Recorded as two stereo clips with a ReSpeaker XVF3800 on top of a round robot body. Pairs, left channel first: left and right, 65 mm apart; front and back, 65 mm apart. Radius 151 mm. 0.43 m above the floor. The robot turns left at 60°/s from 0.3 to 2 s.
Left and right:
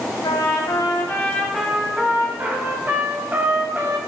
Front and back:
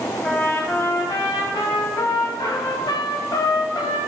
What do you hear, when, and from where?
0.2 s a trumpet: 80° left, 1.1 m; by 4.0 s 25° right, 1.1 m